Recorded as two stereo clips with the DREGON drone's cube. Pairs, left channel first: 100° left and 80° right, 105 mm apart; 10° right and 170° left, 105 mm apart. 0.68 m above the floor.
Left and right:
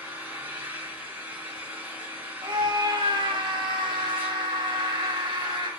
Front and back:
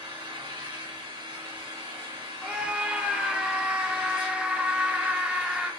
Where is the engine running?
145° right, 1.5 m.